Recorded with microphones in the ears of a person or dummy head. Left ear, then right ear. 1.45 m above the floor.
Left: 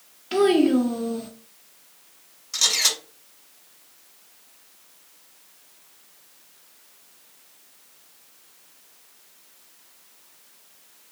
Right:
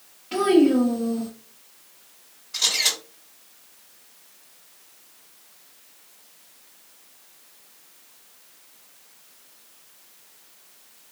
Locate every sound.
0.3 s a child speaking: 30° left (ahead or behind), 0.5 m
2.5 s a camera shutter: 70° left (ahead or behind), 1.4 m